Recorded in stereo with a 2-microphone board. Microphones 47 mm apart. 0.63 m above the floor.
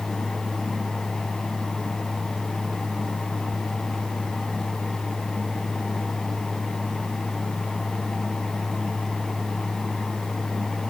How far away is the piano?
No piano in this recording.